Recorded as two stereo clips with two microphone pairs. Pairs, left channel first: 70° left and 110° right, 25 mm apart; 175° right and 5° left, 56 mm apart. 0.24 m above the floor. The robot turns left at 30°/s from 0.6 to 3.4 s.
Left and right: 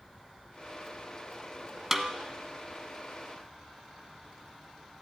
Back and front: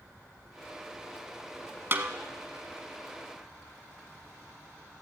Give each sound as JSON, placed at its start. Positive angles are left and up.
{"t": 1.9, "sound": "a snare drum", "azimuth_deg": -40, "distance_m": 1.0}